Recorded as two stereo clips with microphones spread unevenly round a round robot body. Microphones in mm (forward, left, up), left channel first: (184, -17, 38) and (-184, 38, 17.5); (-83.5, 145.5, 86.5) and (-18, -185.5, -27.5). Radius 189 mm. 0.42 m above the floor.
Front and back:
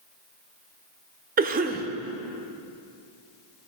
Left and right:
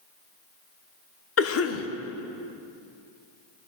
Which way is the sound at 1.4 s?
145° left.